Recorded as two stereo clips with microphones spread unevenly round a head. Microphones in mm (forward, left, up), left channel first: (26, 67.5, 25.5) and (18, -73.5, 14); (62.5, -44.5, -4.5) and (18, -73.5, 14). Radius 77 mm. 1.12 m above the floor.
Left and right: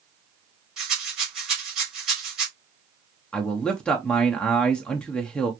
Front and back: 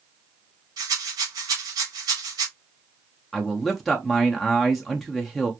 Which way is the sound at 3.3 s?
5° left.